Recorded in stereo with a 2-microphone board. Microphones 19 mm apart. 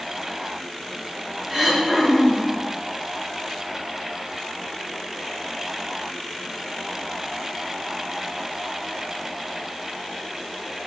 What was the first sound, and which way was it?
Throat clearing, 30° right (ahead or behind).